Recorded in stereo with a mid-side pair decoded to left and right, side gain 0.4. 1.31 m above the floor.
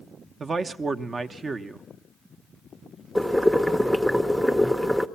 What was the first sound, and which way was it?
A man speaking, 40° right.